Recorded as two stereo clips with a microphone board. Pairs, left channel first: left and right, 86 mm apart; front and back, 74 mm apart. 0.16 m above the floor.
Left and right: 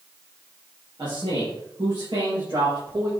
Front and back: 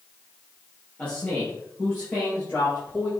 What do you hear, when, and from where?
1.0 s a man speaking: 70° right, 4.5 m; by 3.1 s 60° right, 5.5 m